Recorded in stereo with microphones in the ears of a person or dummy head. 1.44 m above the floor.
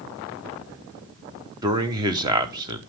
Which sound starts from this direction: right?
A man speaking, at 1.6 s.